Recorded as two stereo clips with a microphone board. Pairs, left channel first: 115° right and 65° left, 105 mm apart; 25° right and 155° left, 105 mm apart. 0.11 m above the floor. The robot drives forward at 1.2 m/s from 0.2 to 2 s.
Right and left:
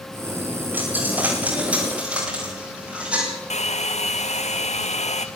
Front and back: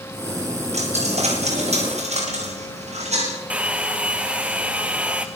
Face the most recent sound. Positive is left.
turn(degrees=-125)